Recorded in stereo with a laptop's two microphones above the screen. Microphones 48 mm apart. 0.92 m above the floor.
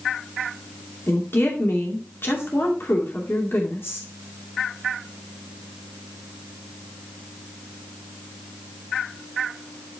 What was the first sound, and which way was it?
A woman speaking, 60° left (ahead or behind).